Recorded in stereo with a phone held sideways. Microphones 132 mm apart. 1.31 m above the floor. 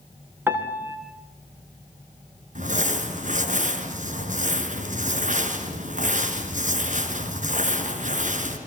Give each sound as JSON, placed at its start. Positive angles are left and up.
{"t": 0.5, "sound": "a piano", "side_deg": -15, "distance_m": 3.5}
{"t": 2.5, "sound": "crumpling", "side_deg": -75, "distance_m": 4.0}